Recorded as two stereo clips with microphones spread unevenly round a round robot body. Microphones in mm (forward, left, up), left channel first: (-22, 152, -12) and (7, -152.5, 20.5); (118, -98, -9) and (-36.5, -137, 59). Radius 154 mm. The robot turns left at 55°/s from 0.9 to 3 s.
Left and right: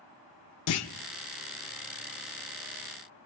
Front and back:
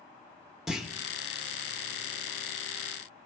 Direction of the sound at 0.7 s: 85° left.